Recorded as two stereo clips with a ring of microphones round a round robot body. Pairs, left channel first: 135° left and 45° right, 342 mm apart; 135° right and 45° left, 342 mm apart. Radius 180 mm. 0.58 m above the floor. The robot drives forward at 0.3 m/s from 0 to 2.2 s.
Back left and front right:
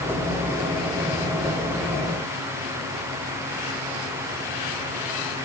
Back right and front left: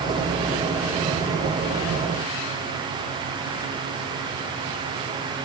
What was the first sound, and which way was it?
Only background noise.